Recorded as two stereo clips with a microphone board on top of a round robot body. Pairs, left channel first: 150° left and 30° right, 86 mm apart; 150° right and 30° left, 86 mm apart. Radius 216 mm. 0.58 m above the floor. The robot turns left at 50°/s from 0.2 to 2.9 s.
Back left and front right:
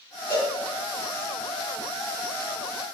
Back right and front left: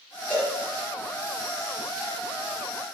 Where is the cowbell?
140° left, 1.8 m; by 0.5 s 125° left, 1.8 m.